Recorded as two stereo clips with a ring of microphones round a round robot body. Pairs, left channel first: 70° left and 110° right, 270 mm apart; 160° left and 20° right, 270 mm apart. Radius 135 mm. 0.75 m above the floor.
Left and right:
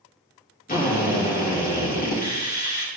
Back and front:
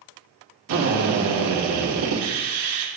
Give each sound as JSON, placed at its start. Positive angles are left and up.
{"t": 0.7, "sound": "a drill", "azimuth_deg": 10, "distance_m": 2.0}